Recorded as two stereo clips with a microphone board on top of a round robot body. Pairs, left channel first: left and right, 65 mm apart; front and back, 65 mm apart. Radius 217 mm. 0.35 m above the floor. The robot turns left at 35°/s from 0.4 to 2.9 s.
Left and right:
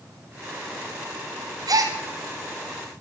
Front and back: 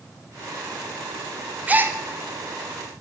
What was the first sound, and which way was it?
A gasp, 110° right.